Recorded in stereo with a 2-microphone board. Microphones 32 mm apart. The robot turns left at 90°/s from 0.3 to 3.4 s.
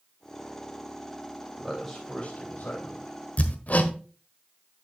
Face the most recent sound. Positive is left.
turn(degrees=50)  # may be behind; listen again after turning